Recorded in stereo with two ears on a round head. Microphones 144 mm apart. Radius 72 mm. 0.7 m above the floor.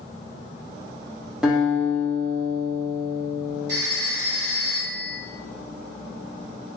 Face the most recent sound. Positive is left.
turn(degrees=-75)  # may be behind; listen again after turning